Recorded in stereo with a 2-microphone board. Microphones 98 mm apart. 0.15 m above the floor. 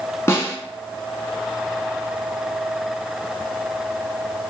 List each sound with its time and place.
0.3 s a snare drum: 30° left (ahead or behind), 0.6 m